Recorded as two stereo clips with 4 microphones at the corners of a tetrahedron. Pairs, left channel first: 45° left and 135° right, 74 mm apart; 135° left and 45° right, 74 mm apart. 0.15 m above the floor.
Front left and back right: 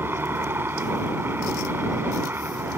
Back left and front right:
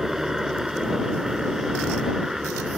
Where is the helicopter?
125° right.